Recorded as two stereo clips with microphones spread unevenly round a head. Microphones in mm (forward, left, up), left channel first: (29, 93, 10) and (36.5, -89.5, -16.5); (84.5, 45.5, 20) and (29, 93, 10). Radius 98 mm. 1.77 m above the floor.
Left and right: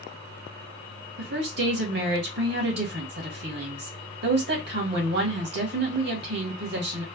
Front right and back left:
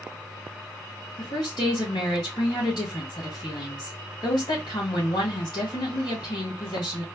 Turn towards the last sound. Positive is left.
turn(degrees=-65)